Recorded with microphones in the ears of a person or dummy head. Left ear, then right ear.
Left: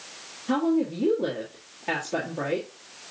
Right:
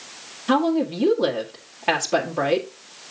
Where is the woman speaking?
50° right (ahead or behind), 1.5 m.